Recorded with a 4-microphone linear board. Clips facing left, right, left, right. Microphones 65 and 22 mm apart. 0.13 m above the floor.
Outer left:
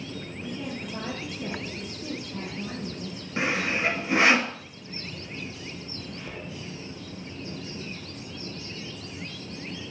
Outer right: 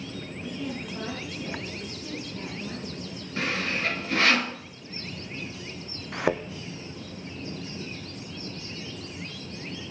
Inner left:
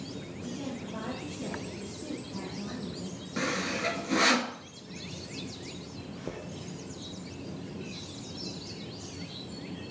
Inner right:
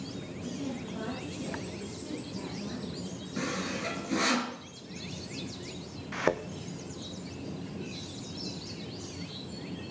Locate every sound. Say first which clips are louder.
0.4 s a woman speaking: outer right 1 dB, inner right 1 dB; 45° left (ahead or behind), 5.5 m
3.4 s sawing: outer left 2 dB, inner left 3 dB; 20° left (ahead or behind), 1.0 m
6.1 s a thud: outer right 17 dB, inner right 13 dB; 75° right (ahead or behind), 0.9 m